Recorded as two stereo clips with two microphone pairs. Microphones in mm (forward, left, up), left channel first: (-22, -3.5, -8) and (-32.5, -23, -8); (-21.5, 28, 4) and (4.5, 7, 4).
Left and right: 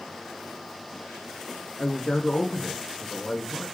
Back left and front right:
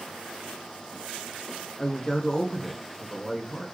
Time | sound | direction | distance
1.8 | a man speaking | 75° left | 1.1 m